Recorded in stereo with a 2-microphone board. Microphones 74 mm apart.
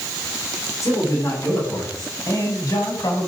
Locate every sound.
0.8 s a man speaking: 45° left (ahead or behind), 7.5 m; by 3.3 s 60° left (ahead or behind), 7 m